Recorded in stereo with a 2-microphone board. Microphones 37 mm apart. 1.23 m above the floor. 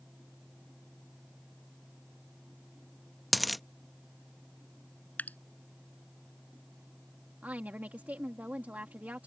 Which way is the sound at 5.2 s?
45° left (ahead or behind).